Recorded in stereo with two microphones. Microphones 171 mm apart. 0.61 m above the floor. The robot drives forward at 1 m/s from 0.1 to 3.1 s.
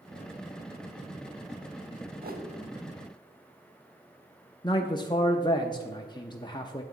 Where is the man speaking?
25° left (ahead or behind), 0.6 m.